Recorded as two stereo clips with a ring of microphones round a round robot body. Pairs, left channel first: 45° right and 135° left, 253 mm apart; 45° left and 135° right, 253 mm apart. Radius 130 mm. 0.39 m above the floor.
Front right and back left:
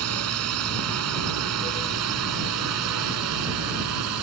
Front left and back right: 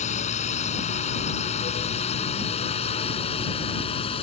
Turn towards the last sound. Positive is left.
turn(degrees=115)